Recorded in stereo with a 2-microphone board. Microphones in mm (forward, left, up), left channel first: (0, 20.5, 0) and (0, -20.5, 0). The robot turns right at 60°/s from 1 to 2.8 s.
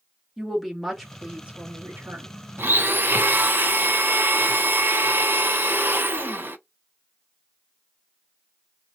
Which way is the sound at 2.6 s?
60° right (ahead or behind).